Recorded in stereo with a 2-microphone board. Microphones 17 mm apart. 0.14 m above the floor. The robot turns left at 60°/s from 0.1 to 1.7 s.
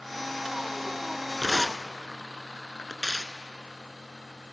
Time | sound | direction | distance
1.4 | tearing paper | 25° left (ahead or behind) | 0.6 m